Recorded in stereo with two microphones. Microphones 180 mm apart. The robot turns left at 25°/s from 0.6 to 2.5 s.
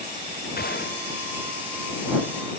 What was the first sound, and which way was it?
A gunshot, 55° left (ahead or behind).